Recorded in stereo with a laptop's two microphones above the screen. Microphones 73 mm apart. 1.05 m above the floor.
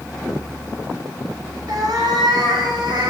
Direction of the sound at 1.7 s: 70° right (ahead or behind).